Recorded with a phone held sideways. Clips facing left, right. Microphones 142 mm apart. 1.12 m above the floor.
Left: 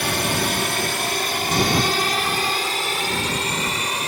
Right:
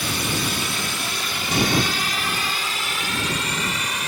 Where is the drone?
65° left (ahead or behind); by 4.1 s 30° left (ahead or behind).